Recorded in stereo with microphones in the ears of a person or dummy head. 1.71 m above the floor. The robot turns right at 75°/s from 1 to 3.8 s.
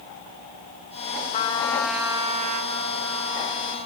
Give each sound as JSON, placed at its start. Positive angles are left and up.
{"t": 1.3, "sound": "a trumpet", "azimuth_deg": 140, "distance_m": 3.0}